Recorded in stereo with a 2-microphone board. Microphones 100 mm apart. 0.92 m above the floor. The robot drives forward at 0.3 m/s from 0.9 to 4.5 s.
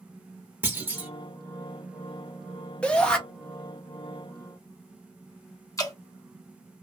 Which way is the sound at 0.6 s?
20° right (ahead or behind).